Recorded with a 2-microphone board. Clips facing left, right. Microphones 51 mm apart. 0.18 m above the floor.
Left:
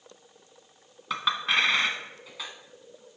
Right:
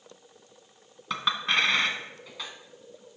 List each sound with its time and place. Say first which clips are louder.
1.1 s a clink: even; 5° left (ahead or behind), 1.0 m